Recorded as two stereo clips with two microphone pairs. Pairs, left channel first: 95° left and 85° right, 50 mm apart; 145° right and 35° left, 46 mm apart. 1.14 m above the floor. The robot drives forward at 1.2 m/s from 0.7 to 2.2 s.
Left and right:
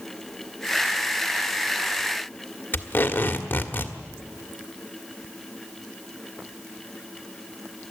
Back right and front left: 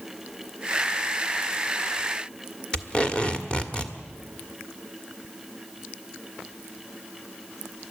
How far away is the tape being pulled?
About 1.6 m.